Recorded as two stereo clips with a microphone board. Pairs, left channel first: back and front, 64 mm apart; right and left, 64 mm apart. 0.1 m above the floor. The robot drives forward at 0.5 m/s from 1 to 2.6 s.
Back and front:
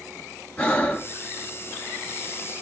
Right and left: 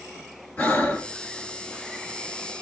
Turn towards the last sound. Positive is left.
turn(degrees=-155)